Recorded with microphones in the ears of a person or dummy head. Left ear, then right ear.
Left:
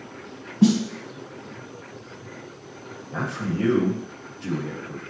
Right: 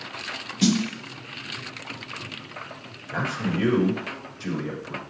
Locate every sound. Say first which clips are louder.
0.6 s a snare drum: left 2 dB; 60° right (ahead or behind), 0.9 m
3.1 s a man speaking: right 2 dB; 80° right, 2 m